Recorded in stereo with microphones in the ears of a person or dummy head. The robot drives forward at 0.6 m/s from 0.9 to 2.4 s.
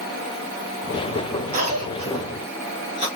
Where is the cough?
40° right (ahead or behind), 1.1 m; by 3.1 s 25° right (ahead or behind), 1.5 m.